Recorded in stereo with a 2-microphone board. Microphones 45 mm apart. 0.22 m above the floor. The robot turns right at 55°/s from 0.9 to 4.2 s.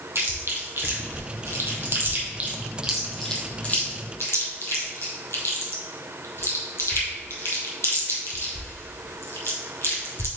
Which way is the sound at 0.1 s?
60° right (ahead or behind).